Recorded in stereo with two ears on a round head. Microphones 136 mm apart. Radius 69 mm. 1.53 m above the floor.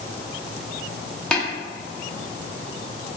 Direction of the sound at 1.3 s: 5° left (ahead or behind).